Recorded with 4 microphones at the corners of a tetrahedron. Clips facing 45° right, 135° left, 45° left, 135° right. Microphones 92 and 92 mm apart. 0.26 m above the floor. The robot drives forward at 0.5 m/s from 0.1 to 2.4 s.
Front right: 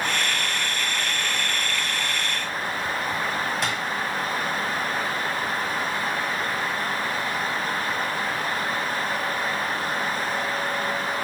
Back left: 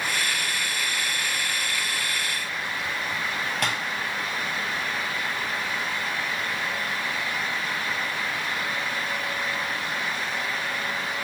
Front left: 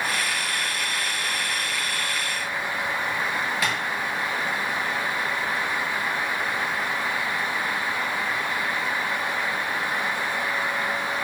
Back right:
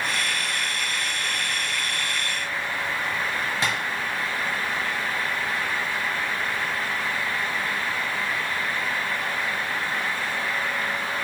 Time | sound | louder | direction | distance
3.6 | tapping | even, back right 1 dB | 165° left | 1.7 m